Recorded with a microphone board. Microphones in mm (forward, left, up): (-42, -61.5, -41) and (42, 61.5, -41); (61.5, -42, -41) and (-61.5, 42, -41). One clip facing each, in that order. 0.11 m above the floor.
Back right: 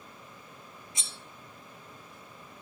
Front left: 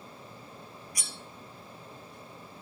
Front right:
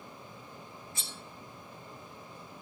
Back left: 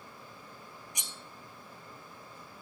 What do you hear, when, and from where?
0.9 s cutlery clinking: 155° right, 0.8 m